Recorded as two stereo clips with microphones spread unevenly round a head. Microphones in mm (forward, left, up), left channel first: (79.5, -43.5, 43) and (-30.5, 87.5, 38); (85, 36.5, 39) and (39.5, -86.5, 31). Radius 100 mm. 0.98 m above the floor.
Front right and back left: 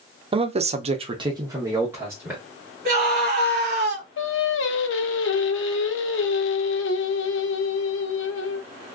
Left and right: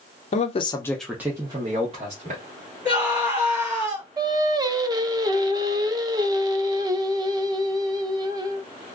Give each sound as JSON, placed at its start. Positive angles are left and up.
{"t": 0.3, "sound": "a man speaking", "azimuth_deg": 80, "distance_m": 0.7}
{"t": 2.9, "sound": "a scream", "azimuth_deg": 175, "distance_m": 1.4}
{"t": 4.2, "sound": "singing", "azimuth_deg": -50, "distance_m": 0.6}